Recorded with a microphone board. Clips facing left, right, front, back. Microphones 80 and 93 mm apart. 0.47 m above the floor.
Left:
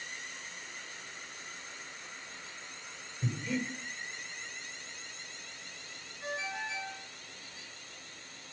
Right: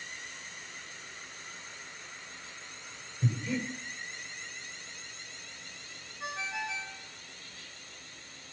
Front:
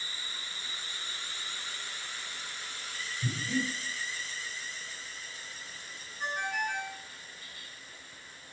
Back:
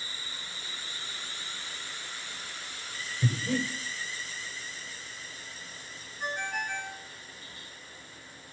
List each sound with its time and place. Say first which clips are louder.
3.2 s breathing: right 2 dB, back 3 dB; 170° right, 2.5 m
6.2 s a ringtone: right 1 dB, front 1 dB; 80° right, 4.5 m